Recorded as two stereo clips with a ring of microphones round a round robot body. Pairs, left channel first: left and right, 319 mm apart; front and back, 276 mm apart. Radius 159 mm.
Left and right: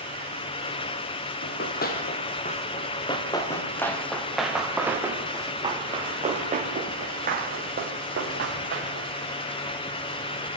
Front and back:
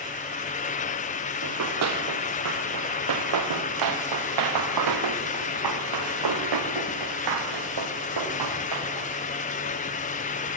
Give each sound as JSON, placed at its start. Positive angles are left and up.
{"t": 1.4, "sound": "running footsteps", "azimuth_deg": 150, "distance_m": 5.5}